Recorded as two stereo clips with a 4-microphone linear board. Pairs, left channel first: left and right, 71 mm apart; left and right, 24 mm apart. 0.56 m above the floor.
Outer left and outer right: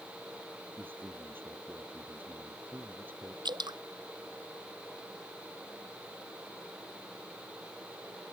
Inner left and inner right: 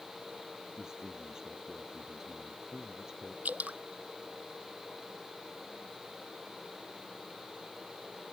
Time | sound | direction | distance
0.8 | a man speaking | 25° right (ahead or behind) | ?
3.5 | dripping | 85° right | ?